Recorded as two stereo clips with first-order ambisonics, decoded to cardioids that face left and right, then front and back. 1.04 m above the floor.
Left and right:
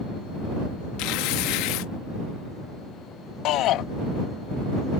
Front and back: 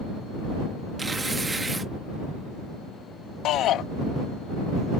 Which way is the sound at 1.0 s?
100° left.